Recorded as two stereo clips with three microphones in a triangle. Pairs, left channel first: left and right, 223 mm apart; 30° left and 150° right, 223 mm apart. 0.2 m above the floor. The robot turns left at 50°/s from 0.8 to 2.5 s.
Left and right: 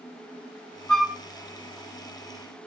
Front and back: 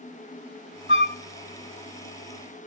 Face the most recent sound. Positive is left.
turn(degrees=-75)